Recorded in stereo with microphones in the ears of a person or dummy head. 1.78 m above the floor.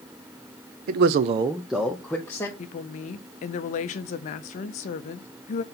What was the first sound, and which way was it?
A man speaking, 45° right (ahead or behind).